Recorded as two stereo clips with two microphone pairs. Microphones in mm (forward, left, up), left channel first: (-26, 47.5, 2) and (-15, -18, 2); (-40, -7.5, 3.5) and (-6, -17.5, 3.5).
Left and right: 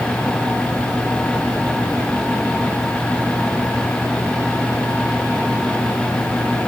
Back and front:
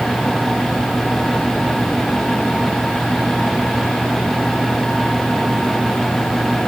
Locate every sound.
Only background noise.